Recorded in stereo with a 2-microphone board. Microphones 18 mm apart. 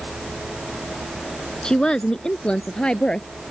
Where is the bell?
No bell in this recording.